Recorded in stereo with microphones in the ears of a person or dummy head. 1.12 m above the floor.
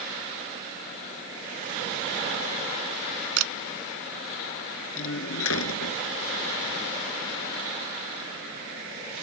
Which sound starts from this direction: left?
A door slam, at 5.0 s.